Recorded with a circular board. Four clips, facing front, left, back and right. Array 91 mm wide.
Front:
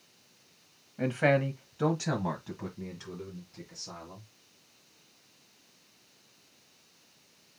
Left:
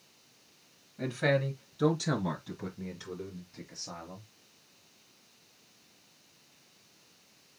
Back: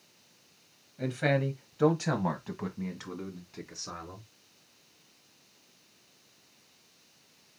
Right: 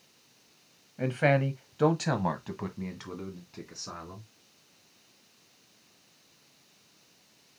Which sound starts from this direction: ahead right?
A man speaking, at 1.0 s.